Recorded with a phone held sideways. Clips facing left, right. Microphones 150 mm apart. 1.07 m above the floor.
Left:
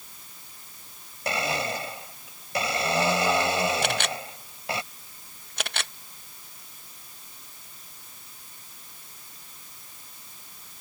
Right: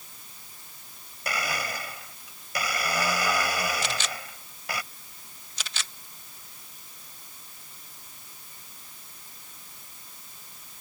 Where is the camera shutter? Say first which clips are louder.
Left 5 dB; 60° left (ahead or behind).